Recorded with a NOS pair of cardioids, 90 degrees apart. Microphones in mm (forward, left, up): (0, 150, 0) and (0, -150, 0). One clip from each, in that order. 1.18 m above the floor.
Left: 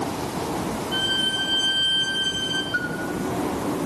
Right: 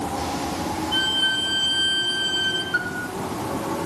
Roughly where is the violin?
Ahead.